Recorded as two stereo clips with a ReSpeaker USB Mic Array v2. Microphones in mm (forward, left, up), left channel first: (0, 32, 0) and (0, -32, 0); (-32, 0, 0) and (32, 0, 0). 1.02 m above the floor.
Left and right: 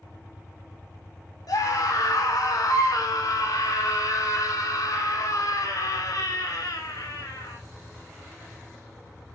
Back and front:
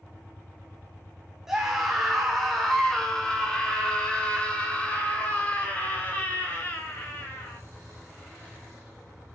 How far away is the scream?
About 2.5 m.